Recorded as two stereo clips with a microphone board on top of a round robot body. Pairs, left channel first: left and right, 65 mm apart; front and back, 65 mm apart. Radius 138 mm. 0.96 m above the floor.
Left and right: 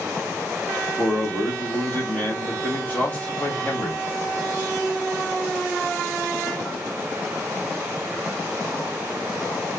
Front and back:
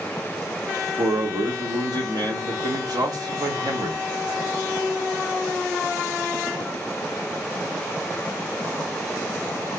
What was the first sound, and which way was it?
A man speaking, 160° left.